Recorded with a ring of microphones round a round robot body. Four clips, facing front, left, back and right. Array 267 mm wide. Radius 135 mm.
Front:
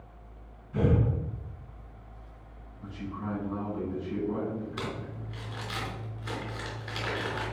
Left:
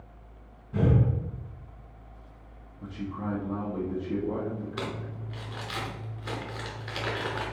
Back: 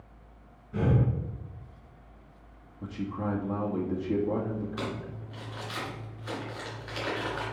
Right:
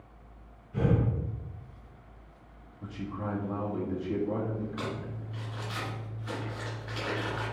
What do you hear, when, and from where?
0.7 s breathing: 115° left, 3 m
2.8 s a man speaking: 165° left, 1.6 m
4.8 s crumpling: 85° left, 3 m